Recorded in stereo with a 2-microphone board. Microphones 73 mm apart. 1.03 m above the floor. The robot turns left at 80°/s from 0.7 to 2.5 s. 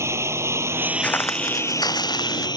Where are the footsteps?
20° left (ahead or behind); by 2.5 s 50° left (ahead or behind).